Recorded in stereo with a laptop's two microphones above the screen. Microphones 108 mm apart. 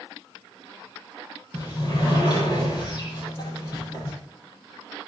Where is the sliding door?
40° left (ahead or behind), 10 m.